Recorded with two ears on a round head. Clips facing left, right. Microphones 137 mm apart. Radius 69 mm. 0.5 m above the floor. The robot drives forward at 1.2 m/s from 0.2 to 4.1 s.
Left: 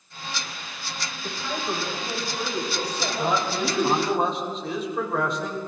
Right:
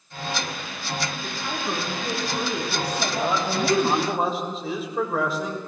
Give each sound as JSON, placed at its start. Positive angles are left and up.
{"t": 1.2, "sound": "a woman speaking", "side_deg": -20, "distance_m": 5.0}
{"t": 3.2, "sound": "a man speaking", "side_deg": 0, "distance_m": 3.5}